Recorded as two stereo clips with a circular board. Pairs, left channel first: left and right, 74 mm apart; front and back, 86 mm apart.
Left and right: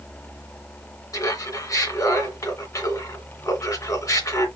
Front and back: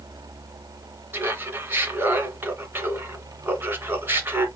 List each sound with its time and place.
1.1 s laughter: 120° left, 2.5 m